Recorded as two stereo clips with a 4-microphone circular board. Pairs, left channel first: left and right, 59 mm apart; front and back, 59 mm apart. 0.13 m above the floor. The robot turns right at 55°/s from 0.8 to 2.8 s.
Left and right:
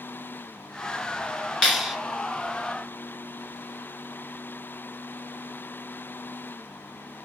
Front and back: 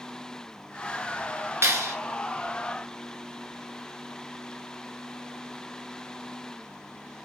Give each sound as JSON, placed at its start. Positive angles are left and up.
{"t": 1.6, "sound": "a clap", "azimuth_deg": 165, "distance_m": 1.7}